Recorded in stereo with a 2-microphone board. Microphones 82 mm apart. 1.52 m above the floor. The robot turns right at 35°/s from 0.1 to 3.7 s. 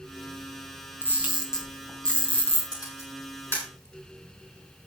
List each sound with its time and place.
1.0 s a camera shutter: 25° right (ahead or behind), 3.5 m; by 2.6 s 30° left (ahead or behind), 3.5 m
2.7 s a camera shutter: 50° left (ahead or behind), 8 m; by 3.7 s 20° left (ahead or behind), 8 m